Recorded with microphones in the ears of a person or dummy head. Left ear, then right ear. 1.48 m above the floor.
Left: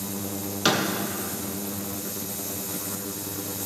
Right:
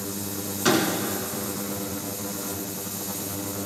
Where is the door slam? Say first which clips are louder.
Right 1 dB; 35° left (ahead or behind), 1.2 m.